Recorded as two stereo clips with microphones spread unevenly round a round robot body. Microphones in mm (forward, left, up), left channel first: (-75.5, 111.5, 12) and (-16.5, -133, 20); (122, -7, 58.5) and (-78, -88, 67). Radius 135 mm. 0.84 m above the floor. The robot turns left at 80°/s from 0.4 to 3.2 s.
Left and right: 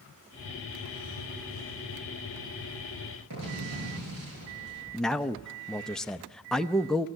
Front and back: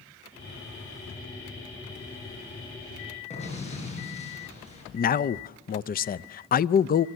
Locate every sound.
3.3 s an explosion: 35° right, 8.5 m
4.9 s a man speaking: 20° left, 0.5 m